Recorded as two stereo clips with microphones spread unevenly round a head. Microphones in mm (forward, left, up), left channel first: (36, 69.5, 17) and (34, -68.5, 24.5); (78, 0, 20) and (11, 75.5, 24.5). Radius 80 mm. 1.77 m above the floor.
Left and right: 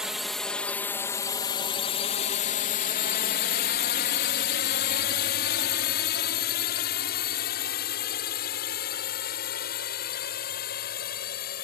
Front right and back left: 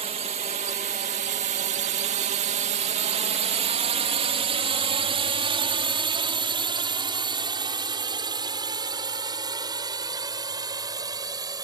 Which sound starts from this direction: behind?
A drone, at 0.0 s.